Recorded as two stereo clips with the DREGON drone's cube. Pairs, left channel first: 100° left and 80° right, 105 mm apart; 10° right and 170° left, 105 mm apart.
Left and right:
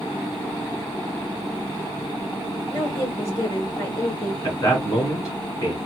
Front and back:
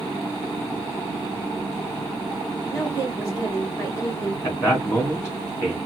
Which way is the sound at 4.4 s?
50° left.